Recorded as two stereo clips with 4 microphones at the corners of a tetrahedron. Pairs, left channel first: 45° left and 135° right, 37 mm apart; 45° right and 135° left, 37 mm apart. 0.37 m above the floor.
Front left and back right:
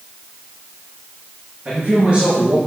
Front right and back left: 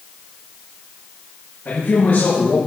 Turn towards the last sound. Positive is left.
turn(degrees=-75)